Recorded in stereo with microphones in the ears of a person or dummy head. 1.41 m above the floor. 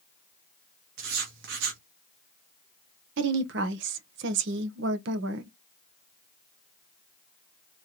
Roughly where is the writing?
Right.